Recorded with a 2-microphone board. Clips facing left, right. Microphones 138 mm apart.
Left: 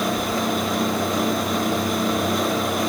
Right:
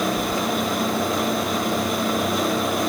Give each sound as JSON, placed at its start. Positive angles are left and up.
{"t": 0.2, "sound": "keys jangling", "side_deg": -25}